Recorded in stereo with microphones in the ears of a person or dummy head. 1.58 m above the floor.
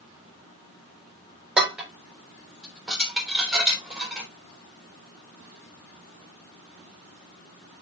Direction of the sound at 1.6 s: 5° right (ahead or behind).